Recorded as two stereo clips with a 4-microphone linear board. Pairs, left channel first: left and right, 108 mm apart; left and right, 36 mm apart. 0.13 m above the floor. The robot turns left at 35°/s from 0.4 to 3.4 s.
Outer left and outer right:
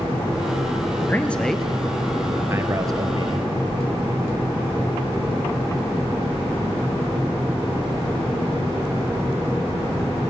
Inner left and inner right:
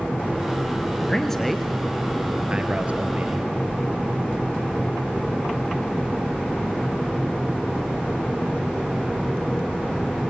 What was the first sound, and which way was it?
A man speaking, 15° left (ahead or behind).